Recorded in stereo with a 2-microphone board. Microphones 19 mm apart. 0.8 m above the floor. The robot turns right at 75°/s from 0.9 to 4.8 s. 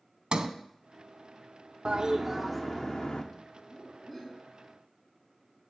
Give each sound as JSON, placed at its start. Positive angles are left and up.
{"t": 0.3, "sound": "a sliding door", "side_deg": -50, "distance_m": 0.9}
{"t": 1.9, "sound": "a toilet flushing", "azimuth_deg": -50, "distance_m": 1.0}
{"t": 3.5, "sound": "laughter", "azimuth_deg": 135, "distance_m": 5.0}